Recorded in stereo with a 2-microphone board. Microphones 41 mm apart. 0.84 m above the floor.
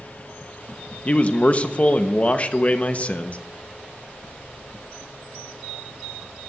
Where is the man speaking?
35° left (ahead or behind), 0.8 m.